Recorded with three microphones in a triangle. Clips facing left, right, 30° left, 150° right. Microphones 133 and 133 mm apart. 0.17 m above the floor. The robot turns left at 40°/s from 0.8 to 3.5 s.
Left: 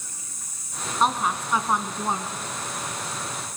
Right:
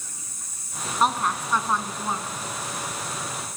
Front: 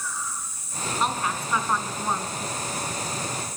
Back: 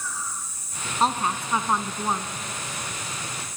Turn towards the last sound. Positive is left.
turn(degrees=85)